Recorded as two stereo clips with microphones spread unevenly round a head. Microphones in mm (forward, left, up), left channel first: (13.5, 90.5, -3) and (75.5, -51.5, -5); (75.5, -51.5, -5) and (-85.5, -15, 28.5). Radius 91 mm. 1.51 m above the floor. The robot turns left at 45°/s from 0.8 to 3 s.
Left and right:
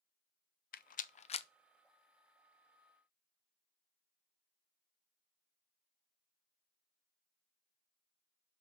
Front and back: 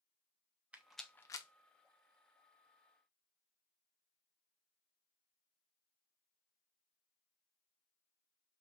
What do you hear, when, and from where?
0.7 s a rattle: 90° left, 0.6 m; by 1.5 s 60° left, 0.6 m